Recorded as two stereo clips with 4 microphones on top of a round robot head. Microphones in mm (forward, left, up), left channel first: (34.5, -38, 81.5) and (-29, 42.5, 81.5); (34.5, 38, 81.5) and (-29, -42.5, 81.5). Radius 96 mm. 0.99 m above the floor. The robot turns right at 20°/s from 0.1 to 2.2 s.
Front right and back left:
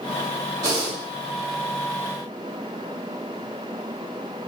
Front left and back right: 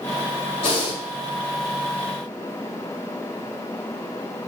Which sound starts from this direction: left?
Breathing, at 0.6 s.